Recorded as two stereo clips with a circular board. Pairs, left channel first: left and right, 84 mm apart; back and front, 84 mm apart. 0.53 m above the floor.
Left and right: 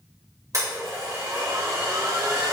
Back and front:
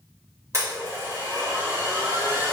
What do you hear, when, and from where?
0.5 s a blender: 50° right, 1.6 m